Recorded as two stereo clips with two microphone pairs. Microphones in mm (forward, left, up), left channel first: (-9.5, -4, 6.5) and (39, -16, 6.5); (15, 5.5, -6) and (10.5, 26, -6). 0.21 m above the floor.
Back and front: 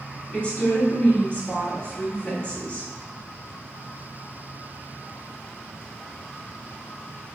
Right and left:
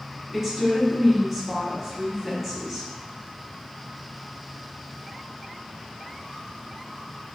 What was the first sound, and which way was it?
A woman speaking, 150° left.